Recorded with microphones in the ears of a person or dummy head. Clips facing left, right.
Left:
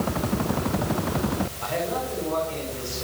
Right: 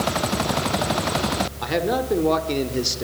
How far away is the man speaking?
About 5 m.